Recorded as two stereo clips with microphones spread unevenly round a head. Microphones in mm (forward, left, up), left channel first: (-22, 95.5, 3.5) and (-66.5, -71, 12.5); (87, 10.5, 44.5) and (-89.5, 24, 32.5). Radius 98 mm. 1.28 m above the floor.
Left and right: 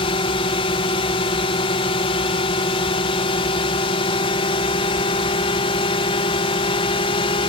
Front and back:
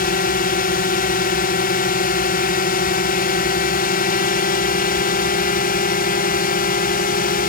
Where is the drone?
20° left.